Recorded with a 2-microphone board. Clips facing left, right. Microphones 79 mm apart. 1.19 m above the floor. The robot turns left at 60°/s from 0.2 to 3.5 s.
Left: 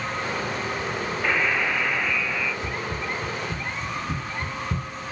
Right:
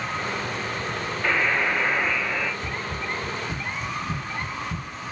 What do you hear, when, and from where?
1.2 s a buzzer: straight ahead, 0.8 m; by 2.5 s 75° right, 0.8 m
2.6 s running footsteps: 5° left (ahead or behind), 2.5 m; by 4.9 s 40° left (ahead or behind), 1.5 m